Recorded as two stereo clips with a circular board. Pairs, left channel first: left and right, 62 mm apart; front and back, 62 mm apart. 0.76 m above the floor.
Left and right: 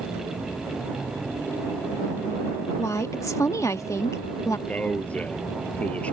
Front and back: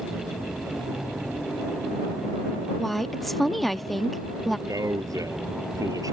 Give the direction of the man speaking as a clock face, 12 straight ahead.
7 o'clock.